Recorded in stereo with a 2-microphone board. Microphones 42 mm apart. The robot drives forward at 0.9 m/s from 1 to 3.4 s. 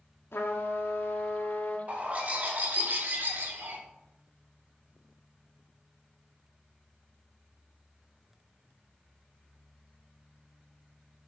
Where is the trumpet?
75° left (ahead or behind), 1.4 m; by 1.8 s 55° left (ahead or behind), 1.7 m.